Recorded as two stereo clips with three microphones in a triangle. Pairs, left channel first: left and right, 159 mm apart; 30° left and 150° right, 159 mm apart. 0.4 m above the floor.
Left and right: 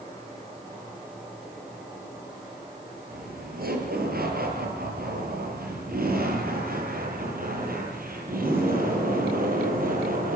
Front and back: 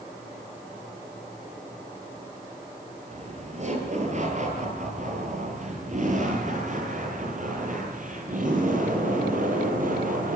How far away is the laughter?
About 9 m.